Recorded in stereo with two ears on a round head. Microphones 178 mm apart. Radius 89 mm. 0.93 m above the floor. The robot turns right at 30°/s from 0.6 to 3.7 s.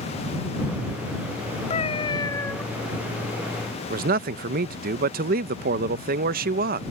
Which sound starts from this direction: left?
A cat meowing, at 1.7 s.